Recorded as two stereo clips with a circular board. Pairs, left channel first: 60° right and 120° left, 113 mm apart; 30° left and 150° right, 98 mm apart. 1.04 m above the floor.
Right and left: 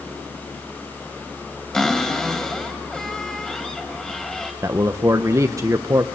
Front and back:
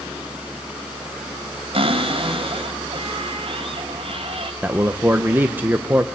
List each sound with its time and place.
1.7 s a cupboard door: 145° right, 2 m
4.6 s a man speaking: 155° left, 0.7 m